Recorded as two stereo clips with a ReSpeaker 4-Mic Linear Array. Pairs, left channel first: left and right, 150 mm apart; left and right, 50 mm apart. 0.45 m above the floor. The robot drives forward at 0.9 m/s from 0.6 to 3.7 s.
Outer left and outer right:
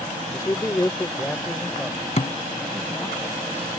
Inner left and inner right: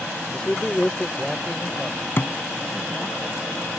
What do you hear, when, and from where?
0.3 s a man speaking: 20° left (ahead or behind); by 3.2 s 5° left (ahead or behind)
2.2 s a thud: 50° left (ahead or behind); by 2.3 s 55° left (ahead or behind)